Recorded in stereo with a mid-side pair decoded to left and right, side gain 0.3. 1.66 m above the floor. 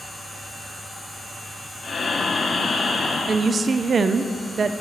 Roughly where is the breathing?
Ahead left.